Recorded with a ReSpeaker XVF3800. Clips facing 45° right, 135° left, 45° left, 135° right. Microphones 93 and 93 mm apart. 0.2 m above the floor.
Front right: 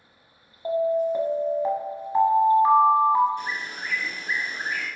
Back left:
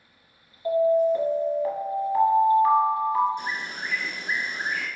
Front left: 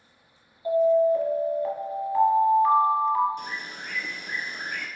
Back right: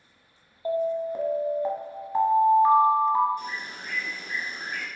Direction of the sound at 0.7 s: 90° right.